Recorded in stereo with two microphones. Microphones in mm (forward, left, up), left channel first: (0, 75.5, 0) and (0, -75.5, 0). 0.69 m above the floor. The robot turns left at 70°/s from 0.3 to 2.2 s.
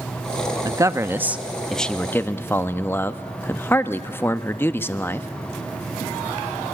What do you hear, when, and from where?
0.7 s a man speaking: 25° right (ahead or behind), 0.5 m; by 5.3 s 15° left (ahead or behind), 0.5 m